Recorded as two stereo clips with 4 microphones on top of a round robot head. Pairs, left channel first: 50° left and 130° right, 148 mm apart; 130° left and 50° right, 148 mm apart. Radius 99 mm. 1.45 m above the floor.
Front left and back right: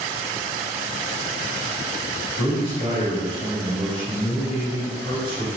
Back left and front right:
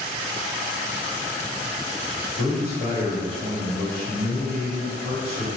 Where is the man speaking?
Straight ahead, 1.7 m.